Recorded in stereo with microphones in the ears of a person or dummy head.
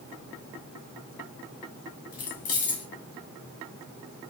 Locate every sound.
2.1 s keys jangling: 50° left (ahead or behind), 1.0 m